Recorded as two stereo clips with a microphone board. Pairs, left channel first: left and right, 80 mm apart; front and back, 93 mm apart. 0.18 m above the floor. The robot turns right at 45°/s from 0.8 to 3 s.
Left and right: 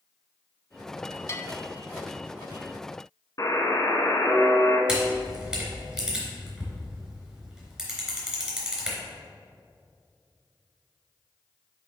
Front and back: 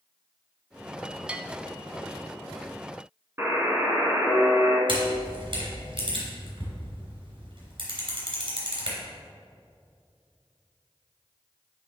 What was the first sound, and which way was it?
A bell, 110° left.